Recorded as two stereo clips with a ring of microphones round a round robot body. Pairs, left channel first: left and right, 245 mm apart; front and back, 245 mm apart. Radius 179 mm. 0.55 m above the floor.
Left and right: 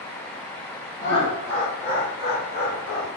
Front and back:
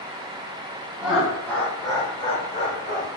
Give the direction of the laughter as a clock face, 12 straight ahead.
9 o'clock.